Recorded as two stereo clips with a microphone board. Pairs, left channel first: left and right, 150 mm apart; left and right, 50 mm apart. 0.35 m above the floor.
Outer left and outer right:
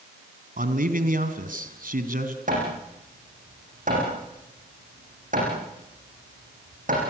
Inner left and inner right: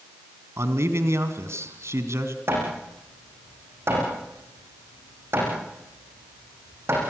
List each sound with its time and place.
0.6 s a man speaking: 70° right (ahead or behind), 3 m
2.5 s hammering: 60° right (ahead or behind), 9.5 m